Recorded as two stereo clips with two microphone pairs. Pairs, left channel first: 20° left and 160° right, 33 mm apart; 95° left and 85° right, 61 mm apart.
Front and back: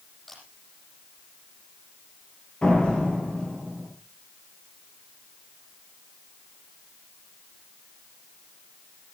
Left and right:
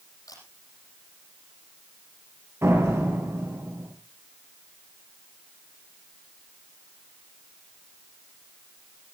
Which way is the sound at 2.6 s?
40° right.